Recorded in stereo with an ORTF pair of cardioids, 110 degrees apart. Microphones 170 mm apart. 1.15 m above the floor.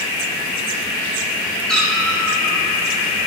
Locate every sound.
1.7 s a cat meowing: 5° left, 1.4 m